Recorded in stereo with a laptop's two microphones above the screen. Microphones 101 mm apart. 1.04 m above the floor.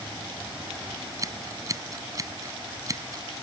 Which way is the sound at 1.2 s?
35° right (ahead or behind).